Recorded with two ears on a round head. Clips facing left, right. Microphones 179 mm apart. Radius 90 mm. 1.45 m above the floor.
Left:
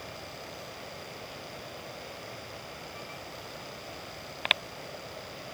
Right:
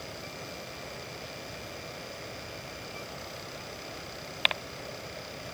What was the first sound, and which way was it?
Only background noise.